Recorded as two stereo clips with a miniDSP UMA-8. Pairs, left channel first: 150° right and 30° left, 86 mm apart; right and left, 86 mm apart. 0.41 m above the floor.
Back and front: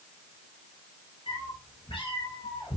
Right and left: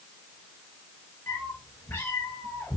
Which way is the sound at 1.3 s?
150° right.